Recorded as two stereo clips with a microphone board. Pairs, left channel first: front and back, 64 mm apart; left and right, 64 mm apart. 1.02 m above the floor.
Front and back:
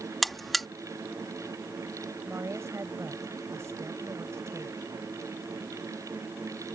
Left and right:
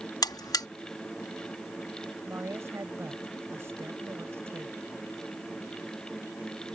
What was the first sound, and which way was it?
A buzzer, 90° left.